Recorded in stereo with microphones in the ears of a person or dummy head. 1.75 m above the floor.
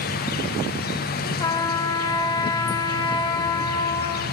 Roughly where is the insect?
Left.